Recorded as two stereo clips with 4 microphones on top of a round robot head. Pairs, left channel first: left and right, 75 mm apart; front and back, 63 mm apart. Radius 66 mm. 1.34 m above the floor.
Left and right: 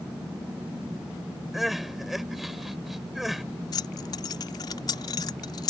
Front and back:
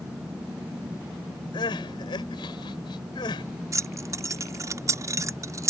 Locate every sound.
1.5 s crying: straight ahead
3.7 s keys jangling: 140° left